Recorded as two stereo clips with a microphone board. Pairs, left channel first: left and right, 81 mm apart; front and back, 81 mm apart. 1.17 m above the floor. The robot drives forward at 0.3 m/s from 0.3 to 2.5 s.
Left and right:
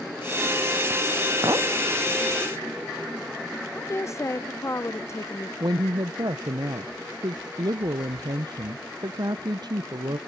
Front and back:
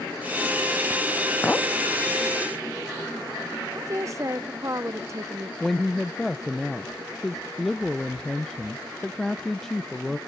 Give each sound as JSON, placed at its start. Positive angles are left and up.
{"t": 1.4, "sound": "a clink", "azimuth_deg": -65, "distance_m": 0.7}
{"t": 3.8, "sound": "a woman speaking", "azimuth_deg": 135, "distance_m": 0.6}
{"t": 5.6, "sound": "a woman speaking", "azimuth_deg": -85, "distance_m": 0.6}